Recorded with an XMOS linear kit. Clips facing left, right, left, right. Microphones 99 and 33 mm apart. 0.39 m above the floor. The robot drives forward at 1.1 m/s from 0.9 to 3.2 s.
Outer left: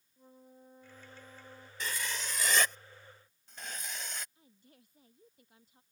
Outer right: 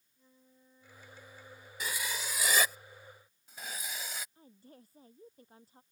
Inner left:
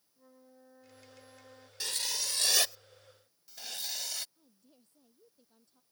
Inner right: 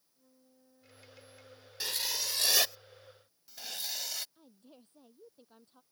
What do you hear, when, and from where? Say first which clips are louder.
0.2 s a flute: outer left 8 dB, inner left 7 dB; 50° left (ahead or behind); by 1.7 s 55° left (ahead or behind)
1.8 s writing: even, inner right 1 dB; 10° right (ahead or behind); by 4.2 s 5° right (ahead or behind)
4.3 s a woman speaking: outer right 7 dB, inner right 7 dB; 40° right (ahead or behind)